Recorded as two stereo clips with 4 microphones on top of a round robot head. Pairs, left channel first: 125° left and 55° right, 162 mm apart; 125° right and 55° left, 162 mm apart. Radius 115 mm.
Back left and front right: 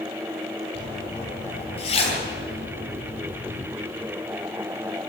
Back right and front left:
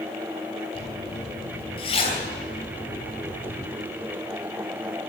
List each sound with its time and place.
0.8 s a zipper: straight behind, 4 m